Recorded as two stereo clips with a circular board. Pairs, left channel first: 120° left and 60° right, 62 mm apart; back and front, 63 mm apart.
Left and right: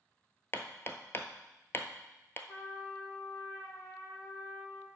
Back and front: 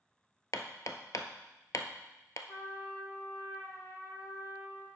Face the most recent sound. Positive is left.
turn(degrees=140)